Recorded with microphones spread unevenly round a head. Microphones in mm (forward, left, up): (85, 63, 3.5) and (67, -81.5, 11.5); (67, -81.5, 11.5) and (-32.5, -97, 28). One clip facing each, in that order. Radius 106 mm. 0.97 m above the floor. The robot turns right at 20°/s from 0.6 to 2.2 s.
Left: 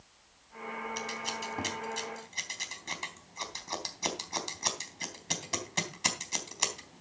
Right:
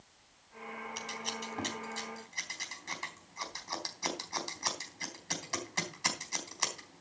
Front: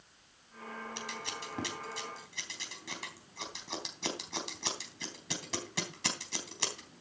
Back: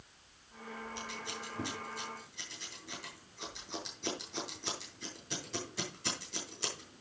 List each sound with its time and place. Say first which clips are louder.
1.0 s scissors: left 3 dB, front 1 dB; 10° right, 3.5 m; by 7.0 s 15° left, 3.5 m